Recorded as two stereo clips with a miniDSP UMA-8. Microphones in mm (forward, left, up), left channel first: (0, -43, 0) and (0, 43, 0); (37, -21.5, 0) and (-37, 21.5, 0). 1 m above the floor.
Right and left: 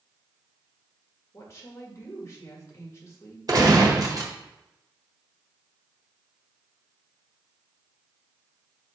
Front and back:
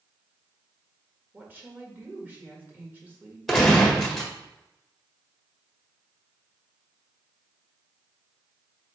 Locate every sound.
1.3 s a woman speaking: 145° right, 1.7 m
3.5 s a gunshot: 60° left, 1.3 m